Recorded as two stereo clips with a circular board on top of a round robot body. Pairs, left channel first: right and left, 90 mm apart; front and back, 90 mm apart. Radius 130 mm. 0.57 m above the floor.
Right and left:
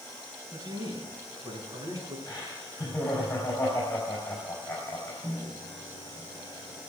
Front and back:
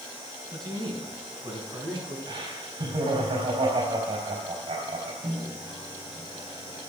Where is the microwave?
150° left, 3 m.